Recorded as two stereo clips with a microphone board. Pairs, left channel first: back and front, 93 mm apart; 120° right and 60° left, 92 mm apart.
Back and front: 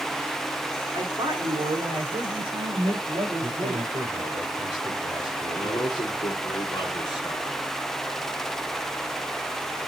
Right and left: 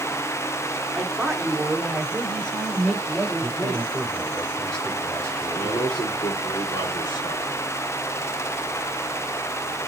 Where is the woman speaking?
35° right, 2.5 m.